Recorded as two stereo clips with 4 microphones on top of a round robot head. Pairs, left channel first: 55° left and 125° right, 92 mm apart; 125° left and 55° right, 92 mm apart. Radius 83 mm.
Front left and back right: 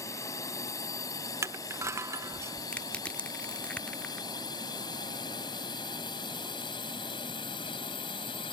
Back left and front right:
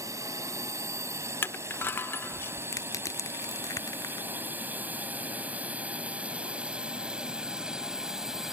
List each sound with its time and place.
0.0 s a drone: straight ahead; by 8.5 s 30° left
1.4 s crushing: 175° right
2.7 s crushing: 125° left